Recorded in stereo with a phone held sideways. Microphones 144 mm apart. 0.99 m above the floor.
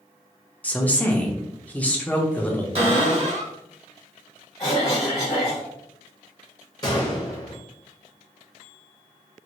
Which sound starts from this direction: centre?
A woman speaking, at 0.6 s.